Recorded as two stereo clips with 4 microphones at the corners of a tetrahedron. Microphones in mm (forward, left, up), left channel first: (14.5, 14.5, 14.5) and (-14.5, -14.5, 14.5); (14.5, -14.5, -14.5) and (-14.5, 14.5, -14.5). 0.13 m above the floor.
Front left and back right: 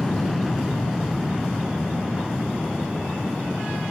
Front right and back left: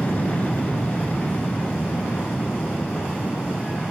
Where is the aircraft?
35° right; by 3.9 s 75° right.